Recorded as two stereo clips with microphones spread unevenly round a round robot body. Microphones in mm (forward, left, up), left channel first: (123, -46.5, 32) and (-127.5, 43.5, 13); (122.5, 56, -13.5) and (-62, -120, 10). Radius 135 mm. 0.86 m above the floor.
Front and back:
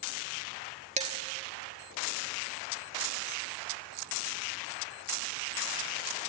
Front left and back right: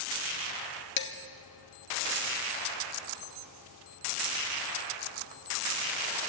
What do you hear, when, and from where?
1.0 s dishes clattering: 95° left, 1.2 m